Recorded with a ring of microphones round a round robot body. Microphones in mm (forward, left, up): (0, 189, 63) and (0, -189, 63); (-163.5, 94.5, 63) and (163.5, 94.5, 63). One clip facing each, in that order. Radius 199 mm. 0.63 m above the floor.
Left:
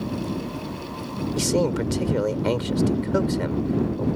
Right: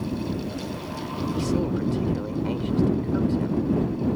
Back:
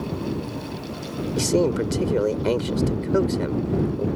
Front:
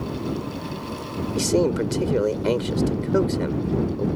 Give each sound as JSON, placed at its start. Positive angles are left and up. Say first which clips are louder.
{"t": 1.4, "sound": "a man speaking", "louder": "left 3 dB, even", "azimuth_deg": 90}